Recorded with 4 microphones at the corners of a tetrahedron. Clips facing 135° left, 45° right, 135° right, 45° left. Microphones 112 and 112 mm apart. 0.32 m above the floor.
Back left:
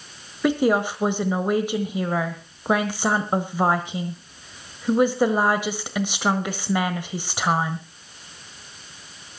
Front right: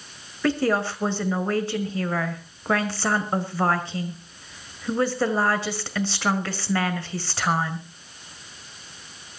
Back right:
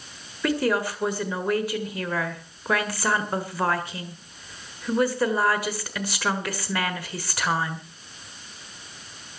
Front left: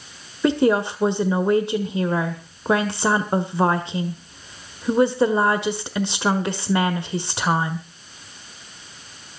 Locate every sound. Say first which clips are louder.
0.4 s a woman speaking: back left 3 dB, front left 6 dB; 80° left, 1.4 m